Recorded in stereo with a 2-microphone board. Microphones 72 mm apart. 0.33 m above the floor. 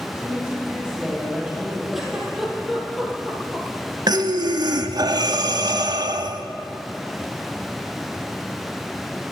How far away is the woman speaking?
About 4.5 m.